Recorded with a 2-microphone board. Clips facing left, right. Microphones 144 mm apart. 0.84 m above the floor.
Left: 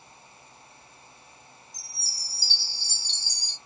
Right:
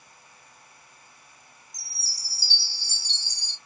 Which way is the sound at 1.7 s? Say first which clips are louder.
Left 2 dB; 45° right (ahead or behind).